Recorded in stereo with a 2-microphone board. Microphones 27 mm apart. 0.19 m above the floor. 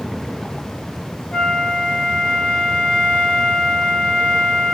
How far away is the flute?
About 2.5 m.